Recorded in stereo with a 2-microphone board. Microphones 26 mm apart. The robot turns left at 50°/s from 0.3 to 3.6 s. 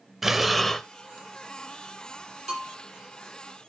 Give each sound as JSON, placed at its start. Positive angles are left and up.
{"t": 0.2, "sound": "breathing", "side_deg": -10, "distance_m": 0.5}
{"t": 2.5, "sound": "a bell", "side_deg": 10, "distance_m": 6.5}